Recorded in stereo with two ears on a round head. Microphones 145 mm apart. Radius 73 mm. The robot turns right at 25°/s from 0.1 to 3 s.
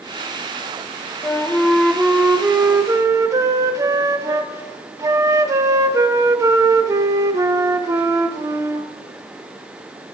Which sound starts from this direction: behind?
A flute, at 1.2 s.